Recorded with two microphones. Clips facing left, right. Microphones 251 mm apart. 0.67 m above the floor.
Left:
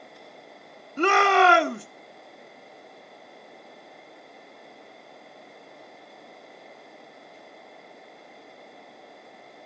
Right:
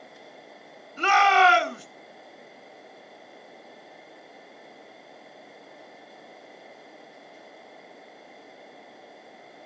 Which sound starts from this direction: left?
A shout, at 1.0 s.